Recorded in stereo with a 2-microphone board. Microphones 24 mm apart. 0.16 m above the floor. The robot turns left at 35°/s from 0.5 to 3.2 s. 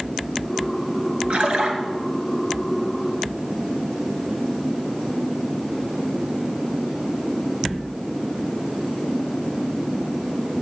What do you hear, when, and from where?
1.3 s a splash: 55° right (ahead or behind), 2 m